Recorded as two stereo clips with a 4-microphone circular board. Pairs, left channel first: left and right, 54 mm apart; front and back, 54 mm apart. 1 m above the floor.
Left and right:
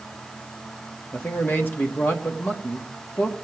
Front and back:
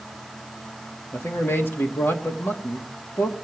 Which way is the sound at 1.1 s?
40° left.